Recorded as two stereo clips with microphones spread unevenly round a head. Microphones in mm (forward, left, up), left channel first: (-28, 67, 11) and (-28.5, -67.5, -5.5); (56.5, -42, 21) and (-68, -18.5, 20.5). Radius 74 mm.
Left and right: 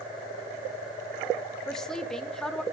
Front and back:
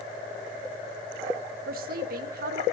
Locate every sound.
1.7 s a woman speaking: 175° left, 1.7 m